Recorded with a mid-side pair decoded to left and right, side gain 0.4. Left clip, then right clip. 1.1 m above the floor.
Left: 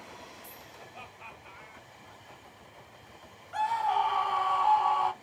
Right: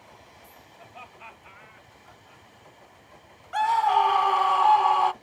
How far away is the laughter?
About 5 m.